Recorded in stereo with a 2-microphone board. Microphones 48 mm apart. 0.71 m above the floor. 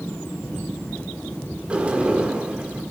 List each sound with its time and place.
1.7 s a sliding door: 25° right (ahead or behind), 1.7 m